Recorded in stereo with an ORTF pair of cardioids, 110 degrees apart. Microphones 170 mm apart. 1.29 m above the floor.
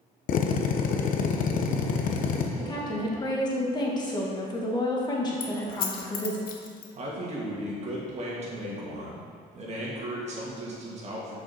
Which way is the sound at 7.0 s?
45° right.